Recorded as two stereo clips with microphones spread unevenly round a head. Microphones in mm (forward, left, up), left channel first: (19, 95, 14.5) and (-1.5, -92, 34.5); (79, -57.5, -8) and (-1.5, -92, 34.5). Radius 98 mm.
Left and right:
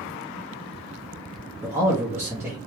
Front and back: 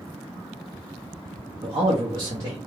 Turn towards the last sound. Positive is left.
turn(degrees=-170)